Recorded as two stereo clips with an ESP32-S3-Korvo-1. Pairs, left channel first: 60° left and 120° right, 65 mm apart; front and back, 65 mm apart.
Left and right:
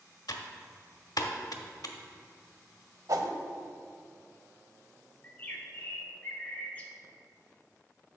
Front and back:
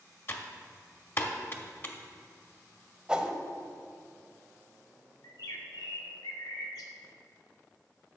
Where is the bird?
10° right, 0.9 m.